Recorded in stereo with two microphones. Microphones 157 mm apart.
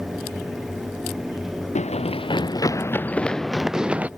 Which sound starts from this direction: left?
Running footsteps, at 1.8 s.